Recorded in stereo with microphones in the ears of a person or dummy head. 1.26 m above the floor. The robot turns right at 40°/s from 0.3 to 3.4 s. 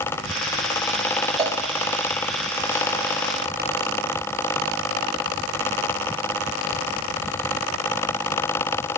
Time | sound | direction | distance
1.4 | a cowbell | 20° right (ahead or behind) | 2.5 m